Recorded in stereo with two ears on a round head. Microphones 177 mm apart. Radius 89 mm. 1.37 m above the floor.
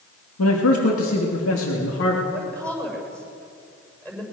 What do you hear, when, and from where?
0.4 s a man speaking: 85° left, 2.5 m; by 2.2 s 70° left (ahead or behind), 3.5 m
2.3 s a woman speaking: 5° left (ahead or behind), 7 m